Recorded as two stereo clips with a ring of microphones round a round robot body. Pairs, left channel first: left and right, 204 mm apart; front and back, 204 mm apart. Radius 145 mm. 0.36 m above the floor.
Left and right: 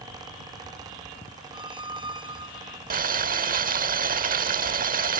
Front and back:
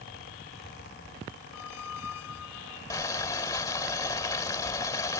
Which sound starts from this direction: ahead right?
A squeak, at 1.5 s.